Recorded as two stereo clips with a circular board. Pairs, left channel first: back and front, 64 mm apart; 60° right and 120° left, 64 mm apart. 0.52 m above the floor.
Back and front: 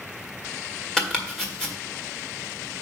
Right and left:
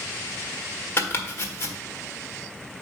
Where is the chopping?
100° right, 1.5 m.